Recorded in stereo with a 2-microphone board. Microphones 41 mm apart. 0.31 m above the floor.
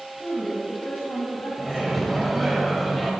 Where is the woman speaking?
55° left (ahead or behind), 1.9 m.